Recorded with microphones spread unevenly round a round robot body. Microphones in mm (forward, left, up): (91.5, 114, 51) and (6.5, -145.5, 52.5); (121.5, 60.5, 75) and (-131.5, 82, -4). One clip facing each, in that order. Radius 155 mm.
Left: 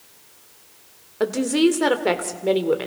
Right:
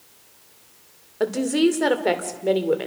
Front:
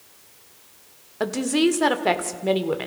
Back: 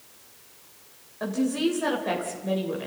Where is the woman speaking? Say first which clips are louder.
Left 1 dB, front 4 dB; 15° right, 2.5 m.